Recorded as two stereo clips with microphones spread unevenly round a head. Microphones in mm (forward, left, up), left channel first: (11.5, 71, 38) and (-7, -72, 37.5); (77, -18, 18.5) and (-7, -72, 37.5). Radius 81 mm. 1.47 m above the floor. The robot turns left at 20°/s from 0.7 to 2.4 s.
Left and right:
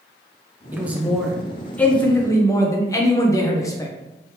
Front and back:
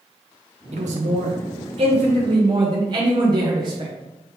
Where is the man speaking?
175° right, 0.9 m; by 3.9 s 150° left, 0.9 m.